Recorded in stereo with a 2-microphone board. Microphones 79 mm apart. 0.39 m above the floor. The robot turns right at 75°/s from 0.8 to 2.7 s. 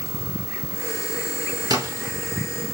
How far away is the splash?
About 1.4 m.